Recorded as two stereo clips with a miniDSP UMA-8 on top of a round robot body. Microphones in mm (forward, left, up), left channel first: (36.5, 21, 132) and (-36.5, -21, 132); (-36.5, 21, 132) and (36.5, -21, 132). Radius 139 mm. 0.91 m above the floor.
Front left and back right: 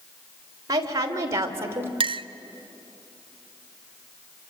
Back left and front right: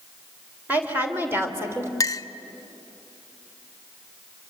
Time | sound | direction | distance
0.7 | a woman speaking | 100° right | 4 m
2.0 | a clink | 160° right | 1.0 m